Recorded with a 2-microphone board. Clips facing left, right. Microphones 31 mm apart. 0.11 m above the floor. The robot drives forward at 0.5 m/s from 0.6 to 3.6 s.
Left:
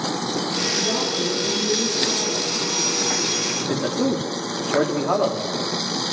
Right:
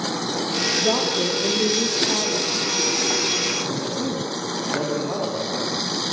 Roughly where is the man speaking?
Left.